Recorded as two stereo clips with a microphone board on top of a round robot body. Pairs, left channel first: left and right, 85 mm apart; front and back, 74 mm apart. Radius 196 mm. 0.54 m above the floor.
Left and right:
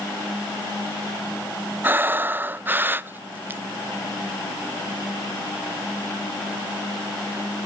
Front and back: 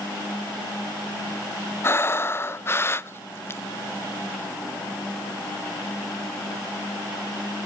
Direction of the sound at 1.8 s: 35° right.